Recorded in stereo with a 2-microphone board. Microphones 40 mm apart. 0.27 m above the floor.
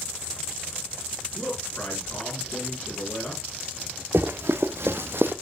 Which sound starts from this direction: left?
A man speaking, at 1.4 s.